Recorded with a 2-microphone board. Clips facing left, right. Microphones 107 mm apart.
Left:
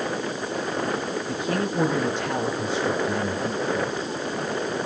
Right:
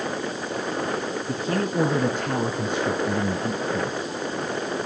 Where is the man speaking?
35° right (ahead or behind), 3.5 m; by 4.2 s 60° right (ahead or behind), 2.5 m.